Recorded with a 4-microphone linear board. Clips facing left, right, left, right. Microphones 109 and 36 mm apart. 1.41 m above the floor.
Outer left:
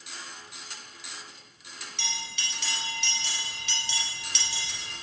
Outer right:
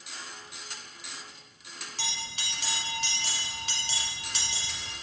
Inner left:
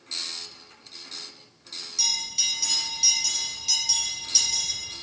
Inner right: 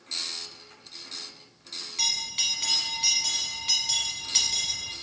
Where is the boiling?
No boiling in this recording.